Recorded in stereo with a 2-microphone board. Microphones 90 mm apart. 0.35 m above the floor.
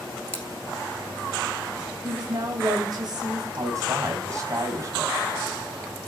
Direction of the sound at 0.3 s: 30° right (ahead or behind).